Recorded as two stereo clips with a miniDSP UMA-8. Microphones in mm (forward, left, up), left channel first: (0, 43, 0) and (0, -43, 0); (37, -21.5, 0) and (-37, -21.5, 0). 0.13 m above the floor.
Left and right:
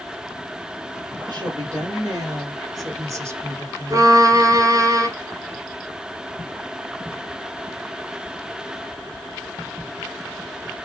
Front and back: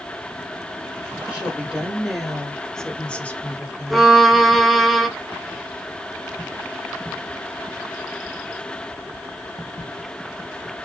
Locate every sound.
1.2 s a woman speaking: 110° right, 3 m; by 4.1 s 30° right, 2.0 m
3.9 s a violin: 90° right, 0.9 m